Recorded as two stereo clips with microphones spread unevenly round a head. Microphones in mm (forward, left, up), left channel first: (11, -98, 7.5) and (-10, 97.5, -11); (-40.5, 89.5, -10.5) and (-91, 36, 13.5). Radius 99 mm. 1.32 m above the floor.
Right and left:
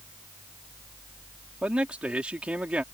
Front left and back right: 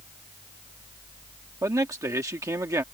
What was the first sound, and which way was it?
A man speaking, straight behind.